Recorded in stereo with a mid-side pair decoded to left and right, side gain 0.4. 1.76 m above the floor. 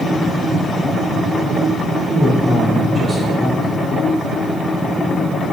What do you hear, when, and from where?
2.1 s a man speaking: 5° left, 1.8 m